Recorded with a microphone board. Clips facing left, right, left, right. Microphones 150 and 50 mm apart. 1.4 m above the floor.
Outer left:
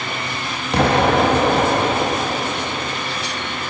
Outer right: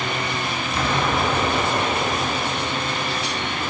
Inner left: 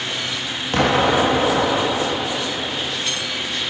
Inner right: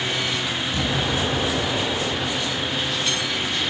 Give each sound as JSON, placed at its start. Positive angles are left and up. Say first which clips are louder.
{"t": 0.7, "sound": "an explosion", "louder": "outer left 8 dB, inner left 11 dB", "side_deg": 70, "distance_m": 1.7}